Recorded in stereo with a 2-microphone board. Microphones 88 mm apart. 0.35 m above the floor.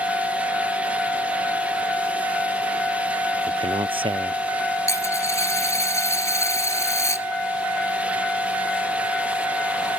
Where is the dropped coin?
35° left (ahead or behind).